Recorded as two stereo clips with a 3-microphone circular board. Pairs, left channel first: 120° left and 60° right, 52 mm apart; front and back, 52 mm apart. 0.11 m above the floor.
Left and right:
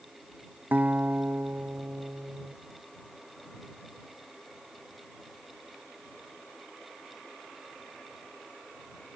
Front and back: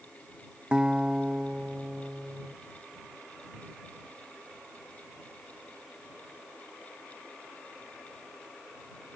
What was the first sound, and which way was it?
A guitar, 110° right.